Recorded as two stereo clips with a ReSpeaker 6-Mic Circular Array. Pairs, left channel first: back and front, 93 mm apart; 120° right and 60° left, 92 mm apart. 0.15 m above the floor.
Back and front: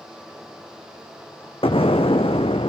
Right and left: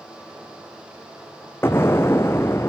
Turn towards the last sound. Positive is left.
turn(degrees=175)